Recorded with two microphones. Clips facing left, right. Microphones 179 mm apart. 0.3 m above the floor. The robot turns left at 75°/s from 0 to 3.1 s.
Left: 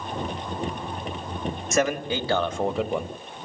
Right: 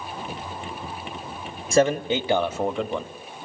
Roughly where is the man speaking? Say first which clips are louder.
Right 5 dB; right.